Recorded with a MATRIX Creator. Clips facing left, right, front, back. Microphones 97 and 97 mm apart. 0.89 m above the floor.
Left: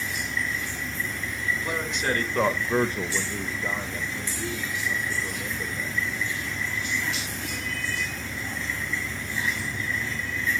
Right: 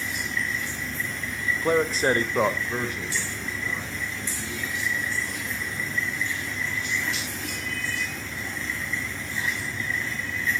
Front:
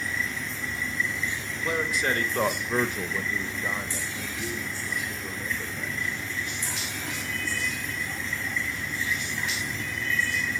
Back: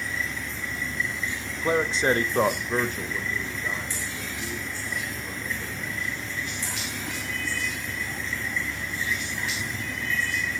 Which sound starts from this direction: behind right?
A man speaking, at 1.6 s.